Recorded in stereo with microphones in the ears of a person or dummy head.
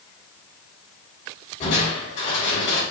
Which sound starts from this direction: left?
Crushing, at 1.6 s.